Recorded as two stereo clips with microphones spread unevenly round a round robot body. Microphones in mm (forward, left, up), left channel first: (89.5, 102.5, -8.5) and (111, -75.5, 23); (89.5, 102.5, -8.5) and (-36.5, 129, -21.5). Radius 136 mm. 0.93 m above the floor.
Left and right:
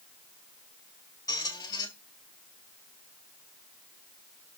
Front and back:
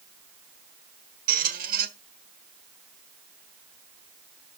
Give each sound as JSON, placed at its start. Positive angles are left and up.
{"t": 1.3, "sound": "a squeak", "azimuth_deg": 175, "distance_m": 1.3}